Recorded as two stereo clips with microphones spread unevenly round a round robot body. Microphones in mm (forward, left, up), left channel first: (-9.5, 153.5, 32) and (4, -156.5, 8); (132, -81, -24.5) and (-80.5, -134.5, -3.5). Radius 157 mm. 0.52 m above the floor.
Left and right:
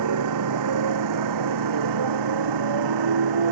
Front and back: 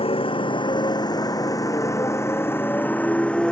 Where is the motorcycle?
50° right; by 3.5 s 70° right.